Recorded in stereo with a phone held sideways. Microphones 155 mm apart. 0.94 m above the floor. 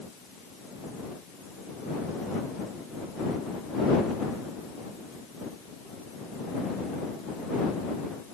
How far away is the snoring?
No snoring in this recording.